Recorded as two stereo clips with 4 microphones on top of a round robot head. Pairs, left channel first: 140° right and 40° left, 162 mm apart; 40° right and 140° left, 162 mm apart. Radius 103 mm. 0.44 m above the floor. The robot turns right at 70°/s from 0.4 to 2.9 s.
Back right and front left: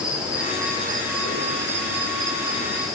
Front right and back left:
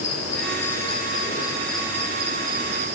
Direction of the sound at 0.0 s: 45° right.